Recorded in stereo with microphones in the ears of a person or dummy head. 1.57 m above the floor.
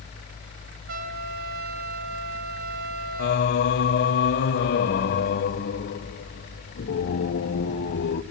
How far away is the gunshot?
No gunshot in this recording.